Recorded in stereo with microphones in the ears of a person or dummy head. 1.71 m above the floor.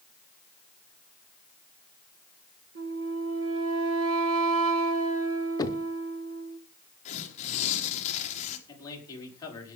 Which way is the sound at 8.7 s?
25° left (ahead or behind).